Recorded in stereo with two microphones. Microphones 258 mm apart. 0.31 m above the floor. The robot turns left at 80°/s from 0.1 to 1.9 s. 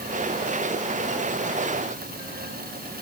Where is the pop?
I don't hear a pop.